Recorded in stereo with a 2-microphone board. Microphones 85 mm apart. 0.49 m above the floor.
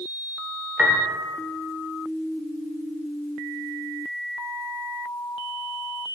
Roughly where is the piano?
Centre.